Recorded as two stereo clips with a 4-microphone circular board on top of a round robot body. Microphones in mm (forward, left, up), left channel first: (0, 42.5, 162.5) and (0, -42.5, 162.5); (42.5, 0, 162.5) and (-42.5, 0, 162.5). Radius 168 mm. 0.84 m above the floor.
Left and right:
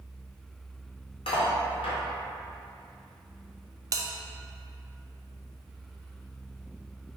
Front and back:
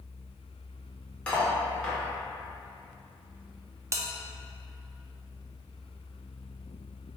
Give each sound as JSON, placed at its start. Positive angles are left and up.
{"t": 1.3, "sound": "cutlery clinking", "azimuth_deg": 80, "distance_m": 0.7}
{"t": 3.9, "sound": "a bell", "azimuth_deg": -130, "distance_m": 0.6}